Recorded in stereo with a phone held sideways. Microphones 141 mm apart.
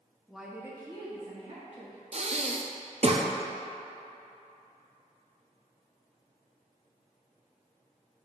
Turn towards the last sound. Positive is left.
turn(degrees=-45)  # may be behind; listen again after turning